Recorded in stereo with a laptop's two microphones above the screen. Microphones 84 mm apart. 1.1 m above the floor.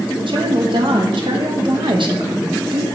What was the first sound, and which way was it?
A woman speaking, 70° right (ahead or behind).